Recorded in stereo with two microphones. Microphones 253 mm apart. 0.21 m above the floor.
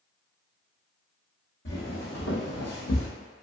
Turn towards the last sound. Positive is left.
turn(degrees=60)  # may be behind; listen again after turning